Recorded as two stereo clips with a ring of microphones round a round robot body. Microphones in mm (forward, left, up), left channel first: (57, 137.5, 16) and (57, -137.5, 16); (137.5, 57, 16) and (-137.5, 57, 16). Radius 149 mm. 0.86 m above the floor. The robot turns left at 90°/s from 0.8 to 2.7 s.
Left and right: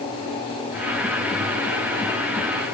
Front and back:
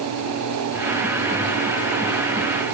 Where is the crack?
No crack in this recording.